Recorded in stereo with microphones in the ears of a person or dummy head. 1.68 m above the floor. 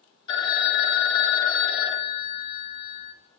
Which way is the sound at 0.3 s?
25° left (ahead or behind).